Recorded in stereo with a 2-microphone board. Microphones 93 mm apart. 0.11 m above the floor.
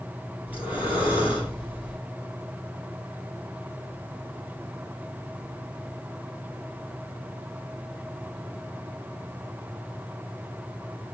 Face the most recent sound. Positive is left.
turn(degrees=-15)  # may be behind; listen again after turning